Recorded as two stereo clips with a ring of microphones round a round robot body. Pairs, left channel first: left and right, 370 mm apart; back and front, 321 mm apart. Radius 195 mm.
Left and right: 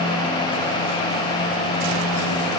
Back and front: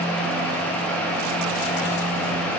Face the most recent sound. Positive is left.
No sound to turn to.